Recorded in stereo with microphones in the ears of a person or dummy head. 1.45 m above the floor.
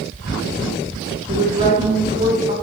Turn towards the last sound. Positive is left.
turn(degrees=-30)  # may be behind; listen again after turning